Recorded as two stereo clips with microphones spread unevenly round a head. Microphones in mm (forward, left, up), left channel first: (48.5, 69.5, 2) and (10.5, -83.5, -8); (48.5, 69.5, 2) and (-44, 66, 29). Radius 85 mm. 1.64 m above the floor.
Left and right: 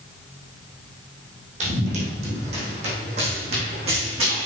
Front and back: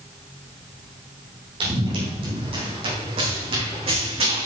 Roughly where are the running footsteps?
Behind right.